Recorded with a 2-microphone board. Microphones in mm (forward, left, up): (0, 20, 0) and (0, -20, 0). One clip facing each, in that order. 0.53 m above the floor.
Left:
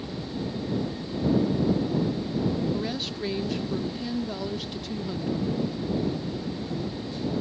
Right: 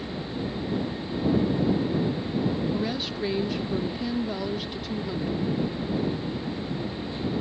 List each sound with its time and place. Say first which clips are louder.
2.7 s a woman speaking: right 2 dB; 10° right (ahead or behind)